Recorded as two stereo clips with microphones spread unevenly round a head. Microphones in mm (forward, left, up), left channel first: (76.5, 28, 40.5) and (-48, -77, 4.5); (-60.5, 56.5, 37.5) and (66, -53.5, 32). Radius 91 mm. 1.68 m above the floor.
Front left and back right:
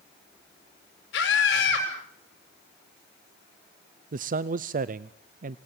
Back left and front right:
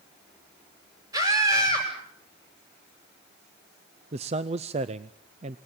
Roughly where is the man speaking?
Right.